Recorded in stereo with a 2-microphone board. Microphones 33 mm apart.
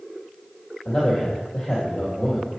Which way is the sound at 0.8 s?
25° left (ahead or behind).